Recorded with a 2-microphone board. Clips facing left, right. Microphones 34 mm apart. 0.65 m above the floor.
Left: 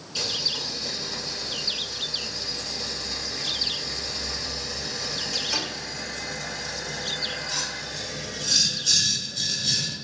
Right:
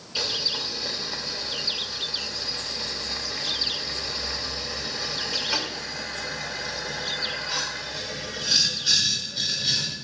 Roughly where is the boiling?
Right.